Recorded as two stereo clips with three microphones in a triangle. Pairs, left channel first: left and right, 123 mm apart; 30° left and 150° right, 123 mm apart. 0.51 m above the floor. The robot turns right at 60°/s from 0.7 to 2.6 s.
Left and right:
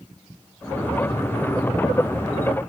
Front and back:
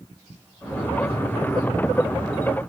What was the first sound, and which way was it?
Only background noise.